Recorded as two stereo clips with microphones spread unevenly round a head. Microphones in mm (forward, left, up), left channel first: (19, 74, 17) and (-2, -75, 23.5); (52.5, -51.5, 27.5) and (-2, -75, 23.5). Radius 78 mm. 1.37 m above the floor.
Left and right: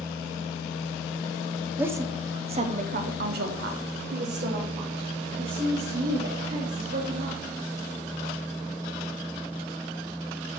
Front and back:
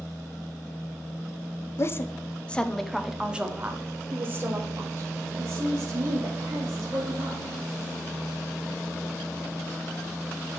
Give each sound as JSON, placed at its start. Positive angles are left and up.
{"t": 1.8, "sound": "a woman speaking", "azimuth_deg": -20, "distance_m": 0.9}